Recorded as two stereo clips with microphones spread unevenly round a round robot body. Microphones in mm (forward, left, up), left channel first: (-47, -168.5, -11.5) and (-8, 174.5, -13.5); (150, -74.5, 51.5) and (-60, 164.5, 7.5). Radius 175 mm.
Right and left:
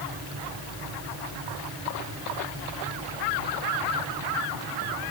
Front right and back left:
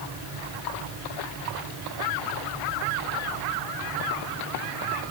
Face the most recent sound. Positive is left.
No sound to turn to.